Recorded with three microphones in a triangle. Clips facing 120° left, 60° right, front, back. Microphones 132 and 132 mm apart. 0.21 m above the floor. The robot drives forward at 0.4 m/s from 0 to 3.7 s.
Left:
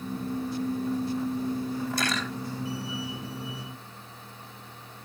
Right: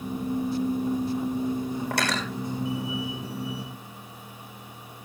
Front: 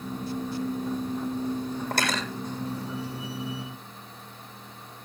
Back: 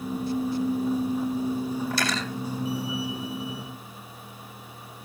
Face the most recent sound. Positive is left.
turn(degrees=-50)